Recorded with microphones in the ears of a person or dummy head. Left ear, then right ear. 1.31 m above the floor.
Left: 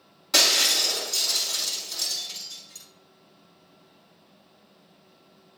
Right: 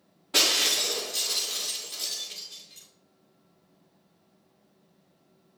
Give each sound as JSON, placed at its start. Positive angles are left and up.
{"t": 0.3, "sound": "breaking glass", "side_deg": 65, "distance_m": 5.0}